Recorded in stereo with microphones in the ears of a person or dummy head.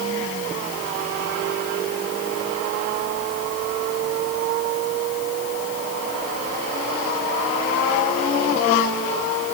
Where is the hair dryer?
No hair dryer in this recording.